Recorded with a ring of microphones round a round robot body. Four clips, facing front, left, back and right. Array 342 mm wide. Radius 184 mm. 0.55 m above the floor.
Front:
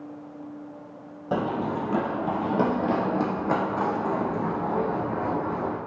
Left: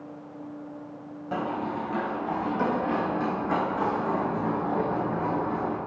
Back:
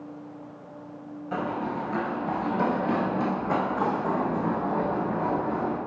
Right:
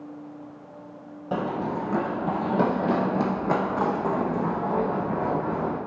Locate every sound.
1.3 s running footsteps: 25° right, 0.9 m; by 5.8 s 65° right, 3.5 m